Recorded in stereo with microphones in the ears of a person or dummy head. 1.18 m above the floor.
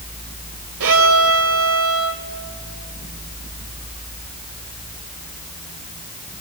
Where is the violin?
75° right (ahead or behind), 2.5 m.